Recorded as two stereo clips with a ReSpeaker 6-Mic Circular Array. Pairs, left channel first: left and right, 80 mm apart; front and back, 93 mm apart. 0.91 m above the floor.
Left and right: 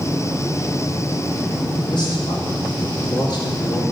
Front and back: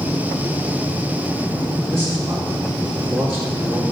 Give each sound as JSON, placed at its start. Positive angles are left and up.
{"t": 1.9, "sound": "a man speaking", "azimuth_deg": 90, "distance_m": 2.5}